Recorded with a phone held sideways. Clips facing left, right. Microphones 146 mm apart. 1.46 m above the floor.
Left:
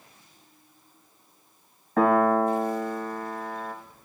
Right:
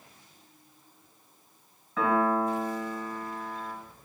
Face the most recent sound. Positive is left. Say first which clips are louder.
# left 5 dB
turn(degrees=55)  # may be behind; listen again after turning